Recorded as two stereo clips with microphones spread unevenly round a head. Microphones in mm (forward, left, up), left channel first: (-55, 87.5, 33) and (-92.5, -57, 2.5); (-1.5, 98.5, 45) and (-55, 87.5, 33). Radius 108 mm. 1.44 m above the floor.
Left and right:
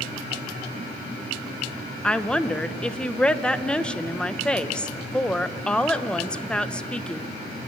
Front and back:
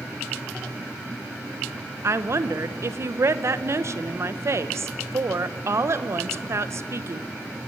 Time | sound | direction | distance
2.0 | a woman speaking | 155° left | 1.0 m